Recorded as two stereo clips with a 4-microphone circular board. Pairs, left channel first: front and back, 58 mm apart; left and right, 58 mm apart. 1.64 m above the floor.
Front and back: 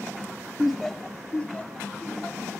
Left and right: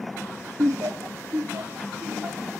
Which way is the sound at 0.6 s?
100° right.